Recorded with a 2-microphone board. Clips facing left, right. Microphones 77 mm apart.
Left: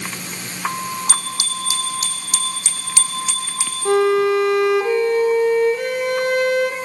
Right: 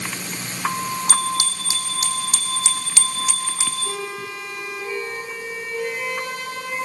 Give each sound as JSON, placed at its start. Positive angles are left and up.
{"t": 1.1, "sound": "a bicycle bell", "side_deg": -40, "distance_m": 5.0}
{"t": 3.9, "sound": "a violin", "side_deg": 60, "distance_m": 2.5}